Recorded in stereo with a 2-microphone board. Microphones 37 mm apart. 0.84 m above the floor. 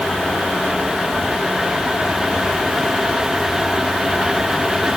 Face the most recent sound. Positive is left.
No sound to turn to.